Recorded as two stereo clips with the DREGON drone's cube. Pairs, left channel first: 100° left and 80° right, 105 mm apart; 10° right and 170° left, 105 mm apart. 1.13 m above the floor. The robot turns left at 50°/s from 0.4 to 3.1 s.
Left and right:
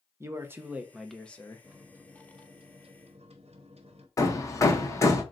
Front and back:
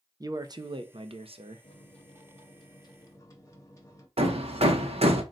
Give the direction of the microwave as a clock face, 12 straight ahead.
12 o'clock.